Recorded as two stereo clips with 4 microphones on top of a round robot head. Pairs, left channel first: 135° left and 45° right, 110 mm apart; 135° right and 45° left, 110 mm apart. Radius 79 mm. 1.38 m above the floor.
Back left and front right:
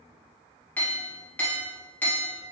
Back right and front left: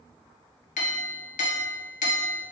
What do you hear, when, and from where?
0.8 s a clink: 150° right, 0.5 m